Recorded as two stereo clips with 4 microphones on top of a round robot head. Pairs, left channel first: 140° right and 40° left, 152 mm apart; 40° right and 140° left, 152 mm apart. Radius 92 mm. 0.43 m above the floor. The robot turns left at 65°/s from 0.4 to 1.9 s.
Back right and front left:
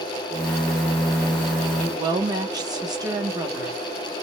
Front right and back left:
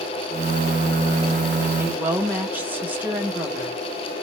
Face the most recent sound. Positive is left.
turn(degrees=70)